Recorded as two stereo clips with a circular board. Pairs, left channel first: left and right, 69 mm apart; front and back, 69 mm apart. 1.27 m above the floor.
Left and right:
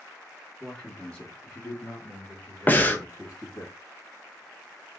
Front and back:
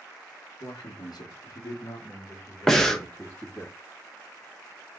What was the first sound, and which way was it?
A man speaking, straight ahead.